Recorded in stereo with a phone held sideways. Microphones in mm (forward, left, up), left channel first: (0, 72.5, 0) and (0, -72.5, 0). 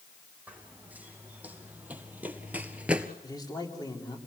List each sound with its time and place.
0.5 s running footsteps: 10° right (ahead or behind), 4 m; by 3.1 s 5° right (ahead or behind), 1.3 m
3.2 s a man speaking: 25° left (ahead or behind), 3.5 m